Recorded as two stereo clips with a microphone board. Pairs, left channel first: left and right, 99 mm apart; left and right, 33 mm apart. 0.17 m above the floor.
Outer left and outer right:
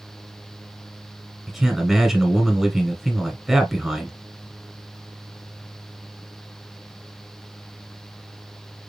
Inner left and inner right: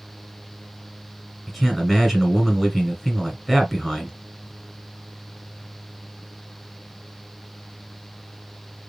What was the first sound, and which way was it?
A man speaking, 5° right (ahead or behind).